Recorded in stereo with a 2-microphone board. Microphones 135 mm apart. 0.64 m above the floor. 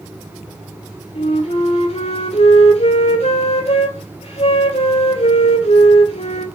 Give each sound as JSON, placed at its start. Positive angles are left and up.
{"t": 1.1, "sound": "a flute", "side_deg": 50, "distance_m": 2.0}